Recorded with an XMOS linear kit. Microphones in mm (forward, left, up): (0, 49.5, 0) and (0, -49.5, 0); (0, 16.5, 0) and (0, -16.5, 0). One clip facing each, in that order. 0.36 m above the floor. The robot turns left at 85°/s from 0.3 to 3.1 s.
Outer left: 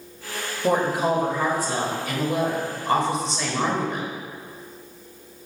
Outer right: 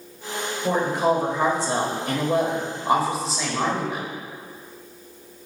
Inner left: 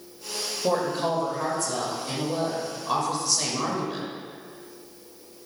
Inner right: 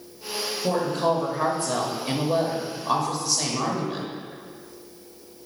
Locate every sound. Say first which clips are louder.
0.6 s a woman speaking: even, inner right 1 dB; 35° left, 1.2 m; by 4.1 s 175° right, 1.2 m